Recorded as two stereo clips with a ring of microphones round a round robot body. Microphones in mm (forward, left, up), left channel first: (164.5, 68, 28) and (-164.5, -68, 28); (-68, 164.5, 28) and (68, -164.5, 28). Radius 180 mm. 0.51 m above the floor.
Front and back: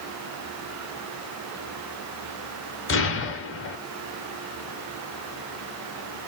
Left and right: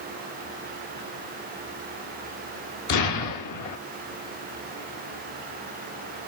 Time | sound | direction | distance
2.9 | an explosion | 75° left | 0.9 m